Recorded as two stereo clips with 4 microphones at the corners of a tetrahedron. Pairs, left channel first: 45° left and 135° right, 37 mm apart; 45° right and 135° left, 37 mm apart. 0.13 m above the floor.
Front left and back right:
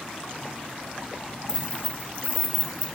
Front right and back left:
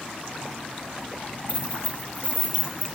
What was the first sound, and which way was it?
Keys jangling, 70° right.